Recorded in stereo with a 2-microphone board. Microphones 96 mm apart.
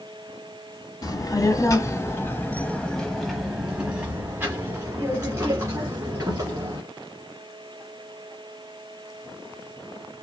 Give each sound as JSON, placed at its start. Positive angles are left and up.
{"t": 1.0, "sound": "a child speaking", "side_deg": 40, "distance_m": 1.3}